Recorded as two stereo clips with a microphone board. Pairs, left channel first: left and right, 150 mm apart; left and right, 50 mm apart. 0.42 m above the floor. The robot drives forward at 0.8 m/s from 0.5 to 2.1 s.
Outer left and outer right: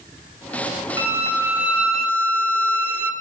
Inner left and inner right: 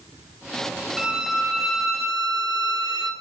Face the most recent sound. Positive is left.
turn(degrees=-5)  # may be behind; listen again after turning